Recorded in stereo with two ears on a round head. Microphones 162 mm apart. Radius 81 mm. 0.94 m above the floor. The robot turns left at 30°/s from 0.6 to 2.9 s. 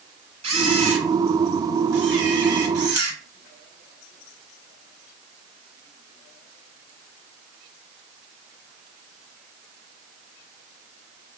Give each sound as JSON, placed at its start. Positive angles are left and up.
{"t": 0.4, "sound": "a camera shutter", "azimuth_deg": -40, "distance_m": 1.5}